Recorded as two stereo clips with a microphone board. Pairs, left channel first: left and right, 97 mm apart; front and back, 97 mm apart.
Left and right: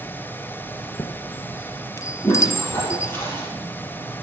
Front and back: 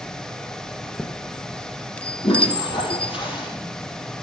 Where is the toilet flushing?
25° left, 5 m.